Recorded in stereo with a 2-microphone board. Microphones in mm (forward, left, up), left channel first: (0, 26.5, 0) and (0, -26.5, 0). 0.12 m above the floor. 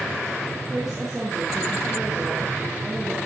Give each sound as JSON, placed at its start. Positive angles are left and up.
{"t": 0.7, "sound": "a woman speaking", "side_deg": -10, "distance_m": 3.5}